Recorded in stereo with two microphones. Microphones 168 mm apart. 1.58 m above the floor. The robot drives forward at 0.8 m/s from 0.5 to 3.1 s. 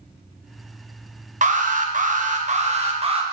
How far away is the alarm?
About 1.2 m.